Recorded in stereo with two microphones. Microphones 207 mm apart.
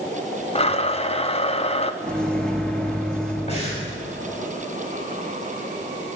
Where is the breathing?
30° left (ahead or behind), 5.5 m.